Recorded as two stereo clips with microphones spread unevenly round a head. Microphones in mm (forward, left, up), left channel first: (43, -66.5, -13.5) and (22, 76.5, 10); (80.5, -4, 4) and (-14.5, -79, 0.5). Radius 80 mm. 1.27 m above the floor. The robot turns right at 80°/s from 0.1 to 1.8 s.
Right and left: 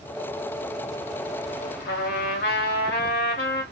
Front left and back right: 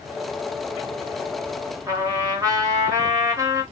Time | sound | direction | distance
1.9 | a trumpet | 80° right | 1.6 m